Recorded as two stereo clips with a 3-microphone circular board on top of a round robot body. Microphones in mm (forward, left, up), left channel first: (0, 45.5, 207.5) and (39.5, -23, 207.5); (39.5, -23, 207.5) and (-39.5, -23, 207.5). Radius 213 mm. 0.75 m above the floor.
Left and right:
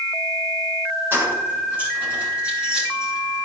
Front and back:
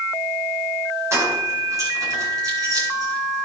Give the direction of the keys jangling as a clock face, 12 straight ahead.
4 o'clock.